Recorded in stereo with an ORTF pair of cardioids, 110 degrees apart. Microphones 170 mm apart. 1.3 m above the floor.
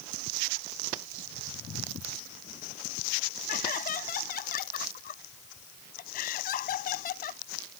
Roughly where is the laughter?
Ahead left.